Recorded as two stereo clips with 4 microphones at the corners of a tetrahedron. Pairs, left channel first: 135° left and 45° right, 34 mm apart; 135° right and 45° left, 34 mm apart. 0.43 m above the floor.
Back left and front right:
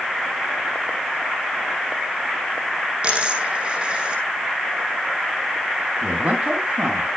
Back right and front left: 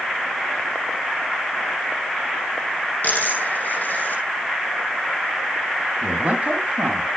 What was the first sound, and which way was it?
A dropped coin, 100° right.